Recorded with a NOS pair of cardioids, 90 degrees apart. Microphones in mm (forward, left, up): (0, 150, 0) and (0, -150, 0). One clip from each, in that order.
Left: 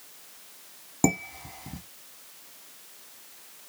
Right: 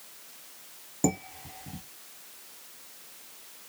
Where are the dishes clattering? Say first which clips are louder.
Left 3 dB; 35° left, 1.5 m.